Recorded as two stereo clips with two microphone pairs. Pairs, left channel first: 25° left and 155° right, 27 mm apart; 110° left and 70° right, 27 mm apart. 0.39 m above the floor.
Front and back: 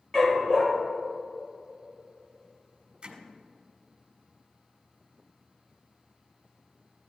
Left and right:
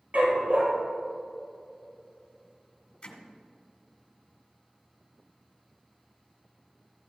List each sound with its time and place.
0.1 s a dog barking: 35° right, 3 m
3.0 s hammering: 155° left, 1.5 m